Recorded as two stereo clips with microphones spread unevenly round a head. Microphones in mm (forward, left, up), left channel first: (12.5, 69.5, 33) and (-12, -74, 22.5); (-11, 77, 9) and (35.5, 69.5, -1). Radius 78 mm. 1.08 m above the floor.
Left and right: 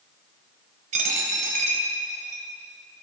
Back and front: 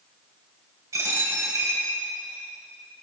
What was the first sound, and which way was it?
A dropped coin, 55° right.